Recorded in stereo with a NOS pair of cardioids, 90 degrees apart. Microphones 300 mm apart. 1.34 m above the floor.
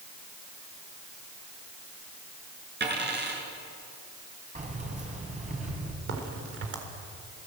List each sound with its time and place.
2.8 s a dropped coin: 35° right, 7 m
4.5 s keys jangling: 25° right, 6.5 m
6.1 s a crack: 45° right, 4 m